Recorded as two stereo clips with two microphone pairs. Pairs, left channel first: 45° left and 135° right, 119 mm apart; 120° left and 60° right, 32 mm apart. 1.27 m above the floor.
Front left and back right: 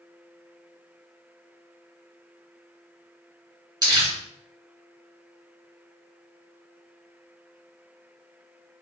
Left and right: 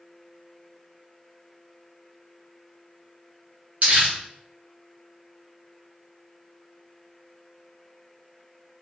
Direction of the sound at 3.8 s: 80° right.